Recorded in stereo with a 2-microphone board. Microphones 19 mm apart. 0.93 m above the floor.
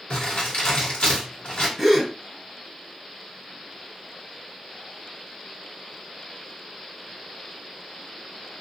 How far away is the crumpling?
About 1.7 m.